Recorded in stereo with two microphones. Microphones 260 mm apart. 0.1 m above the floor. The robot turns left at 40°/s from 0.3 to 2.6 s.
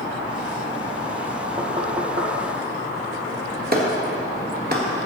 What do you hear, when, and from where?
1.6 s knocking: 20° right (ahead or behind), 2.0 m; by 2.3 s 40° right (ahead or behind), 2.0 m
3.7 s a clap: 40° right (ahead or behind), 1.4 m